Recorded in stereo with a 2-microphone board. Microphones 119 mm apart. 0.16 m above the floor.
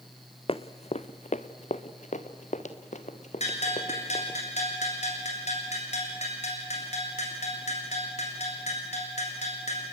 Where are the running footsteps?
55° left (ahead or behind), 0.7 m; by 4.4 s 75° left (ahead or behind), 2.5 m.